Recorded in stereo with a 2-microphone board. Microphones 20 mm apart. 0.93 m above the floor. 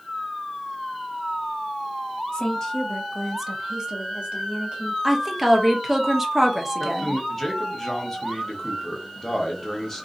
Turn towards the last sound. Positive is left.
turn(degrees=20)  # may be behind; listen again after turning